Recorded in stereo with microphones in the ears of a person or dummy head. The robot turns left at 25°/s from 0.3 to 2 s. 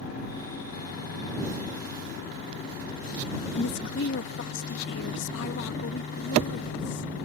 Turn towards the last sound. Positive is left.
turn(degrees=70)  # may be behind; listen again after turning